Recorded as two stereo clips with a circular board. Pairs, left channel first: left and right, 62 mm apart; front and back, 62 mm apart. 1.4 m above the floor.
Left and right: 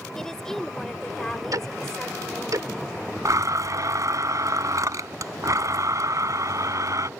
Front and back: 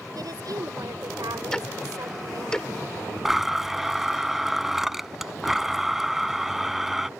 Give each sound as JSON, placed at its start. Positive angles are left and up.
{"t": 0.1, "sound": "a woman speaking", "azimuth_deg": 175}
{"t": 1.5, "sound": "ticking", "azimuth_deg": -80}
{"t": 3.2, "sound": "a blender", "azimuth_deg": -95}